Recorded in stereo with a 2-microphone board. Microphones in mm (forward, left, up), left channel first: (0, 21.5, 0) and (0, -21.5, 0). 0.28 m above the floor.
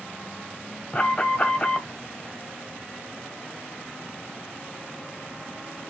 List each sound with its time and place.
0.9 s an alarm: 20° left (ahead or behind), 1.3 m